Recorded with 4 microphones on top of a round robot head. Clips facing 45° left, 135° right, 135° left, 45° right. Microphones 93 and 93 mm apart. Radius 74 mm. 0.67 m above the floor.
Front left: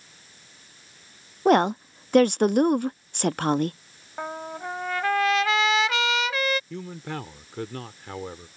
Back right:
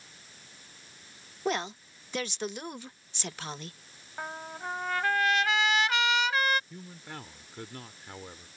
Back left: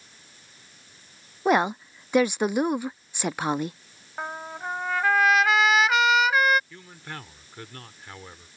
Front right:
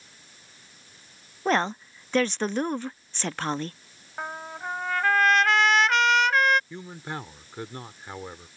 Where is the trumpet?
50° left.